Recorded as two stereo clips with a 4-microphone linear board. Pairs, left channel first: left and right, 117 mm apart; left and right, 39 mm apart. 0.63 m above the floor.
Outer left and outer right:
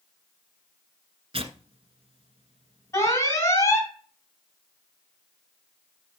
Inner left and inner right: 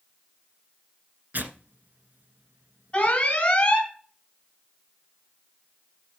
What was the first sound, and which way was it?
Tearing paper, 55° right (ahead or behind).